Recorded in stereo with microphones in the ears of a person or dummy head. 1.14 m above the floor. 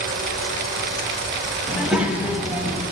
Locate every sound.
1.7 s a child speaking: 10° right (ahead or behind), 1.3 m